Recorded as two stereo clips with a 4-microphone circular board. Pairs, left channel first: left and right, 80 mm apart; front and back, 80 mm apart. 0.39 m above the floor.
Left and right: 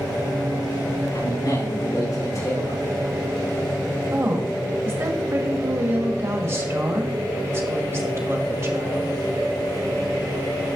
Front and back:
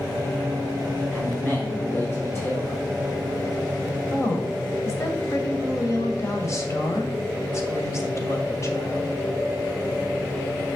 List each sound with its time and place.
1.1 s a man speaking: 70° left, 5 m; by 2.8 s 50° left, 5 m
4.1 s a woman speaking: 40° right, 1.7 m